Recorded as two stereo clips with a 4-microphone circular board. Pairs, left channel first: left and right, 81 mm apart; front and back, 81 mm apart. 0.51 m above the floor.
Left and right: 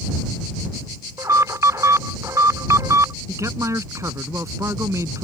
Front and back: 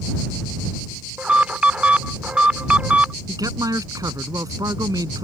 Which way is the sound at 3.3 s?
140° right.